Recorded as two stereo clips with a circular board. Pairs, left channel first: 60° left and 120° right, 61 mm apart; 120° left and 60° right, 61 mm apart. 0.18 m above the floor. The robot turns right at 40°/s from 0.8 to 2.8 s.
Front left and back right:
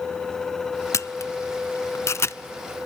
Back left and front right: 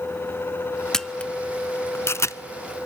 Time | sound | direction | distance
0.9 | a camera shutter | 40° left | 0.5 m